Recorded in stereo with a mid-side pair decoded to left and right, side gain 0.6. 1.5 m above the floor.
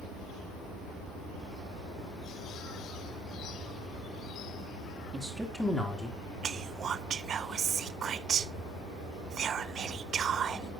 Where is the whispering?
40° right, 0.8 m.